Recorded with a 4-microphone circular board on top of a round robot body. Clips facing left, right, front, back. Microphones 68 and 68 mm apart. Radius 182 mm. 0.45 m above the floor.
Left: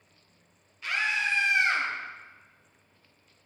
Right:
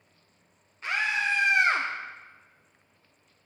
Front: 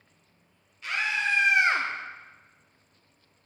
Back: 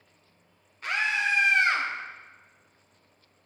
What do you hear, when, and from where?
0.8 s a scream: 140° right, 1.4 m; by 1.9 s 50° right, 1.2 m